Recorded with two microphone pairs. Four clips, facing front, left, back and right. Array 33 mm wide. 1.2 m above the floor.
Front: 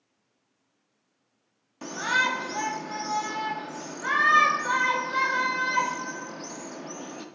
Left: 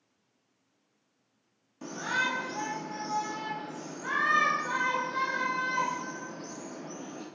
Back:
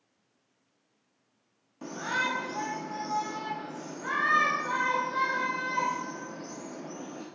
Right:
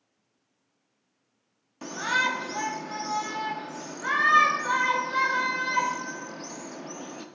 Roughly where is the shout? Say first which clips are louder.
Right 4 dB, front 5 dB; ahead right.